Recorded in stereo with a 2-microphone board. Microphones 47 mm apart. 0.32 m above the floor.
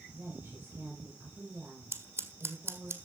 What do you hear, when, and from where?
0.1 s a woman speaking: 40° right (ahead or behind), 6.5 m
1.9 s scissors: 55° right (ahead or behind), 1.9 m